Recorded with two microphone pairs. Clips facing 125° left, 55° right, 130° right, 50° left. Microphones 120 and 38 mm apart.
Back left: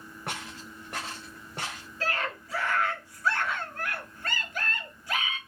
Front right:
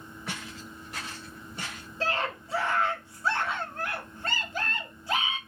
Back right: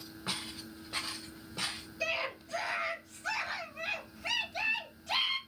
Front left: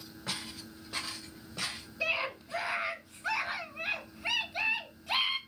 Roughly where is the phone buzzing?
I don't hear a phone buzzing.